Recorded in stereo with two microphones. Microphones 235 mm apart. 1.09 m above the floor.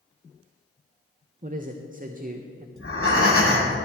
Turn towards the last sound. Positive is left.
turn(degrees=70)  # may be behind; listen again after turning